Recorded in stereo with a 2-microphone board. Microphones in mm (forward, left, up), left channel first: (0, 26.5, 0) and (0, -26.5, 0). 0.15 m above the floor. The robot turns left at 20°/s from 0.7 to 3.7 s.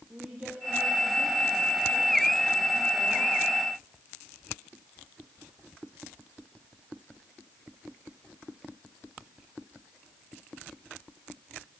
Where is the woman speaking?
20° right, 6 m; by 3.4 s 75° right, 6 m.